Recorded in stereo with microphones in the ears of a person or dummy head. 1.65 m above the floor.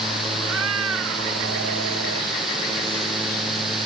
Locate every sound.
0.4 s a cat meowing: 85° right